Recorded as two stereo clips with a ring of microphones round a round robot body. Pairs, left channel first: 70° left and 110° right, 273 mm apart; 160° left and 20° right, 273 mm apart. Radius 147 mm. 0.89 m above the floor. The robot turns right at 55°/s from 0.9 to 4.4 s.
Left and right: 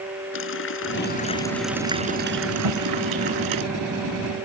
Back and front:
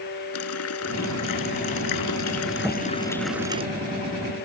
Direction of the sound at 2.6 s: 120° right.